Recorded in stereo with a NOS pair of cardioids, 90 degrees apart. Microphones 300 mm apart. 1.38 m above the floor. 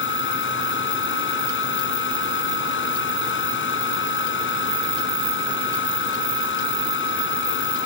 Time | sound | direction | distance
0.0 | a fan | 40° left | ?